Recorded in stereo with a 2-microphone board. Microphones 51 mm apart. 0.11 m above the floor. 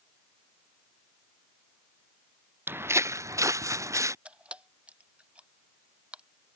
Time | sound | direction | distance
2.7 | footsteps | 40° right (ahead or behind) | ?
4.2 | a camera shutter | 25° right (ahead or behind) | ?